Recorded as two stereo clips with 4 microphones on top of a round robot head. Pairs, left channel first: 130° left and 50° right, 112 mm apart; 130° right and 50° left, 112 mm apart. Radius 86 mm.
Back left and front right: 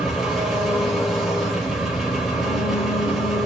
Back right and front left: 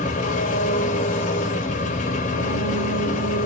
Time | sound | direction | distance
0.0 | an engine running | 140° right | 3 m